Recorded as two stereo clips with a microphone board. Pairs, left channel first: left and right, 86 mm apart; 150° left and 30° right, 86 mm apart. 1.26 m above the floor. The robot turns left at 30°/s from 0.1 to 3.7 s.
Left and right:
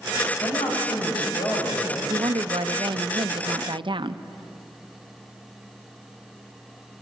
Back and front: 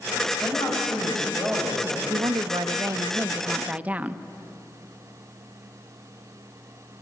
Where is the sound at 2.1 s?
55° right, 0.7 m; by 4.2 s 105° right, 0.7 m.